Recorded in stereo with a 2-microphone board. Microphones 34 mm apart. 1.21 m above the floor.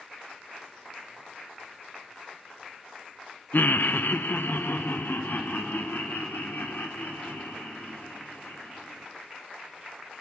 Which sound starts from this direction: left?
Laughter, at 3.5 s.